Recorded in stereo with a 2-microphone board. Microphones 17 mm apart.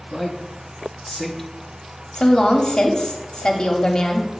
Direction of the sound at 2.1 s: 45° left (ahead or behind).